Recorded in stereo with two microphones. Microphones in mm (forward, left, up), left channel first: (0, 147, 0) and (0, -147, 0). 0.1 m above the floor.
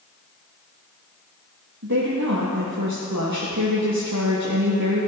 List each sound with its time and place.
1.8 s a woman speaking: 70° right (ahead or behind), 3.5 m